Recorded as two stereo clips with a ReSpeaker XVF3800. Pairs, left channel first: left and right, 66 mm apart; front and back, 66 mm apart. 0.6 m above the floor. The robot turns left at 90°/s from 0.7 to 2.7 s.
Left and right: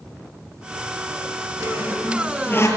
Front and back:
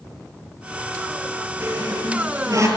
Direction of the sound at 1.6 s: 130° right.